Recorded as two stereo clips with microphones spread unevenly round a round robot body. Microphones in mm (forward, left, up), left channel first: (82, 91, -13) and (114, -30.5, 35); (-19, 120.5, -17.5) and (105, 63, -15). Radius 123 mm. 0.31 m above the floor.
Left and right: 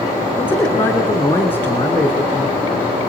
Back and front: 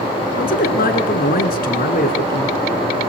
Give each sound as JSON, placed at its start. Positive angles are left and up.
{"t": 0.4, "sound": "a man speaking", "azimuth_deg": 175, "distance_m": 3.5}